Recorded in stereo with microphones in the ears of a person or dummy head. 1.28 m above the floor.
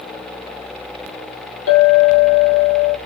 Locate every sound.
1.7 s a clink: 80° left, 1.7 m